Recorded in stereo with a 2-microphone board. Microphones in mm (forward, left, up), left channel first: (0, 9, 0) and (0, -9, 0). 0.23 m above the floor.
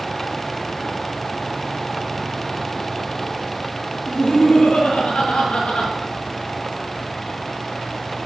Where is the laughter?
60° left (ahead or behind), 5.5 m.